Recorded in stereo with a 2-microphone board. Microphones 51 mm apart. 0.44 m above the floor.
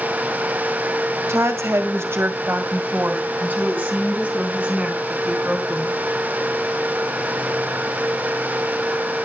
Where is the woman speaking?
65° right (ahead or behind), 2.0 m; by 6.0 s 15° right (ahead or behind), 5 m.